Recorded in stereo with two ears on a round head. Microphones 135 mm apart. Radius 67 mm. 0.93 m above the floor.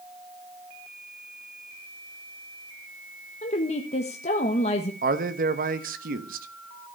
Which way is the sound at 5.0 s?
60° right (ahead or behind).